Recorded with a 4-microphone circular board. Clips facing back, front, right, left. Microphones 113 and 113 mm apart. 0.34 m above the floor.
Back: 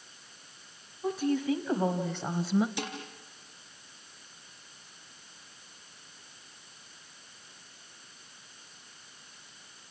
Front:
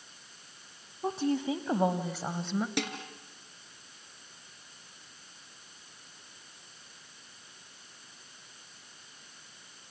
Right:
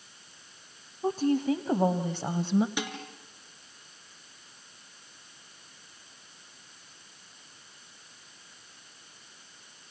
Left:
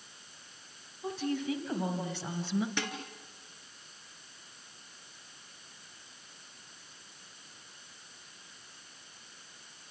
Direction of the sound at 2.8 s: 15° right.